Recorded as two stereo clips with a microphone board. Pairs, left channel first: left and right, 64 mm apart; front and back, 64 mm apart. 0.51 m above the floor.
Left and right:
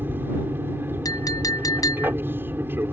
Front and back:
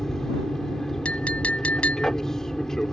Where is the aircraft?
75° right.